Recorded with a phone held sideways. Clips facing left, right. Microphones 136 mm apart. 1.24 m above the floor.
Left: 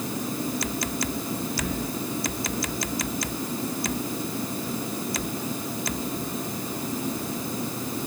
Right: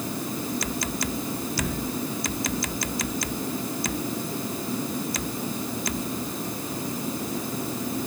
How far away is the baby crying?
No baby crying in this recording.